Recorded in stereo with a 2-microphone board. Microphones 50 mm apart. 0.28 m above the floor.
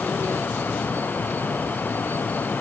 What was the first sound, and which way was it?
Only background noise.